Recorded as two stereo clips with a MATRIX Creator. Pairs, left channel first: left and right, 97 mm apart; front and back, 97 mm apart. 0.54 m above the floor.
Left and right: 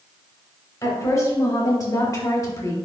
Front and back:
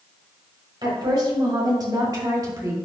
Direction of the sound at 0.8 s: 145° left.